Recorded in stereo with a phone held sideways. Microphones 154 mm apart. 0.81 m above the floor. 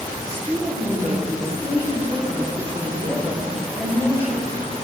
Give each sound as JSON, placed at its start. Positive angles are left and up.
{"t": 0.2, "sound": "a woman speaking", "side_deg": 25, "distance_m": 6.0}